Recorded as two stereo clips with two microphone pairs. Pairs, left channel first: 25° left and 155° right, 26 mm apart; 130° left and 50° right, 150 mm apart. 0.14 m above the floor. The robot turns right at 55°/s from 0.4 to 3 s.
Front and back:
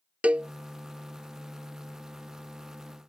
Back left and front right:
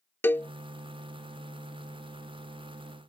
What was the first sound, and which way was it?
A cowbell, 155° right.